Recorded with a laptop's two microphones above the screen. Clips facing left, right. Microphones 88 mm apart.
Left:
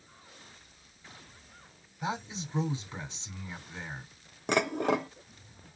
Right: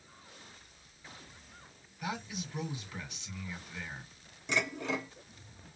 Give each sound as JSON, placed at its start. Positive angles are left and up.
{"t": 2.0, "sound": "a man speaking", "side_deg": 25, "distance_m": 2.5}
{"t": 4.5, "sound": "dishes clattering", "side_deg": 60, "distance_m": 0.9}